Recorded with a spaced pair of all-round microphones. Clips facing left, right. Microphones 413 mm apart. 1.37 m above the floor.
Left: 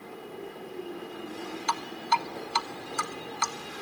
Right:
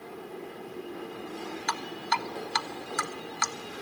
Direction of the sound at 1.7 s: 35° right (ahead or behind).